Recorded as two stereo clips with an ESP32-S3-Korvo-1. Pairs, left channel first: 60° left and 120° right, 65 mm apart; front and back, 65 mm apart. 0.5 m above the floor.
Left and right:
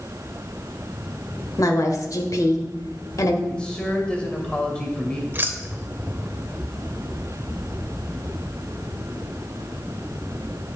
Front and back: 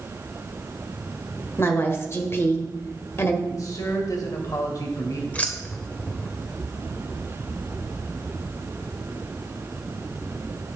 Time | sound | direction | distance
1.6 | a woman speaking | 45° left | 1.5 m
3.5 | a man speaking | 15° right | 2.5 m
5.3 | keys jangling | 65° right | 1.0 m